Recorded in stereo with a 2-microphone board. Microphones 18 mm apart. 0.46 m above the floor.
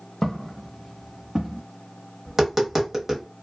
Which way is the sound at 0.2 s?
30° left (ahead or behind).